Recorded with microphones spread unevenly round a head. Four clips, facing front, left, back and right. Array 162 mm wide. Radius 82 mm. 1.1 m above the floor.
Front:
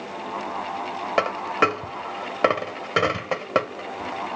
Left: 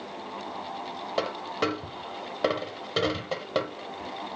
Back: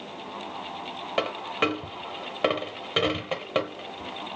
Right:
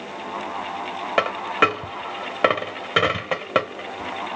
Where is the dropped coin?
35° right, 0.9 m.